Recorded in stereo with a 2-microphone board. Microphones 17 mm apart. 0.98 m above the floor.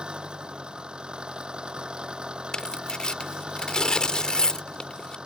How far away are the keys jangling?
I don't hear keys jangling.